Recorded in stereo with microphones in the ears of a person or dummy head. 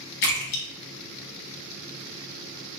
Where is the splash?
50° left (ahead or behind), 0.7 m.